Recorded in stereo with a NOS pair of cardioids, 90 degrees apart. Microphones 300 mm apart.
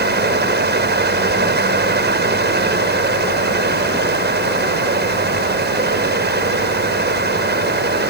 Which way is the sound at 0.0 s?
35° right.